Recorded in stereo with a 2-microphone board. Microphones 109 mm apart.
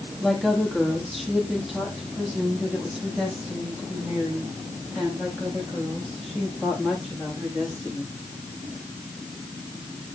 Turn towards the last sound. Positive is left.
turn(degrees=-5)  # may be behind; listen again after turning